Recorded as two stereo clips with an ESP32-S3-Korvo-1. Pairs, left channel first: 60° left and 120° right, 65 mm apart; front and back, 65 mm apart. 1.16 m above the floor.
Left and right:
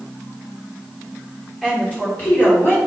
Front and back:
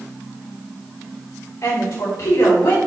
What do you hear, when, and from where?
1.6 s a woman speaking: 15° right, 3 m; by 2.8 s 15° left, 3 m